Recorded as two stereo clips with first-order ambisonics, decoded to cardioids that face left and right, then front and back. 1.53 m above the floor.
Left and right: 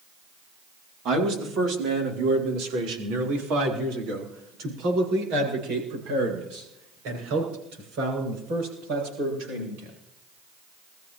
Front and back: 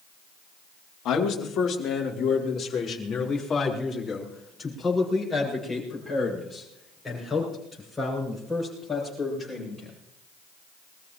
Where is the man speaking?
45° right, 3 m; by 9.9 s 85° right, 9 m.